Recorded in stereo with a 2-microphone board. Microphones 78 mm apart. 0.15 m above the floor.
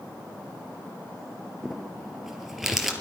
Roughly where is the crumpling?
Centre.